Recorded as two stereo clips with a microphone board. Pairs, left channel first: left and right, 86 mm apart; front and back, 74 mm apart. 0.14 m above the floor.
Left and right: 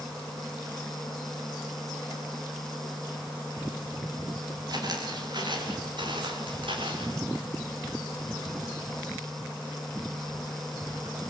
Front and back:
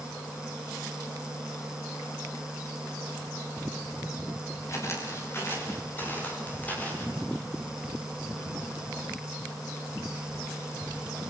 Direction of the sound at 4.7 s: 50° right.